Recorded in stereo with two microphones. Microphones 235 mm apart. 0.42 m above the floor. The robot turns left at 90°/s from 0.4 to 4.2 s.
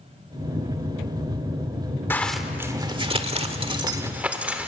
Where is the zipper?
10° left (ahead or behind), 1.2 m; by 4.7 s 5° right (ahead or behind), 1.2 m.